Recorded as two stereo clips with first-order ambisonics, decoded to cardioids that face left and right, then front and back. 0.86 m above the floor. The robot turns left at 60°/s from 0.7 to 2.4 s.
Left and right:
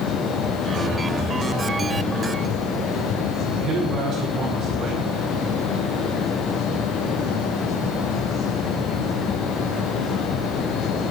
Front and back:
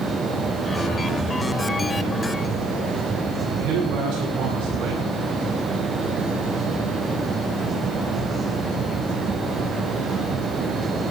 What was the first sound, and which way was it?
A man speaking, 150° right.